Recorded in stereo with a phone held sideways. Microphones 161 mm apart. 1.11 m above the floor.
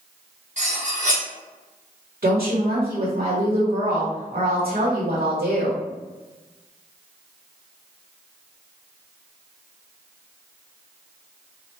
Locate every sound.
0.6 s cutlery clinking: 50° right (ahead or behind), 1.2 m
2.2 s a woman speaking: 85° right, 1.2 m